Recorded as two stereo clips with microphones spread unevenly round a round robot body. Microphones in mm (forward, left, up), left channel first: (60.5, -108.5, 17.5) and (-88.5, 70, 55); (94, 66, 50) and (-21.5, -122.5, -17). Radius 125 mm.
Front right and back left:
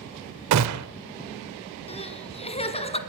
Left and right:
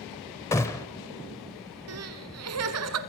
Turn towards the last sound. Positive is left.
turn(degrees=-115)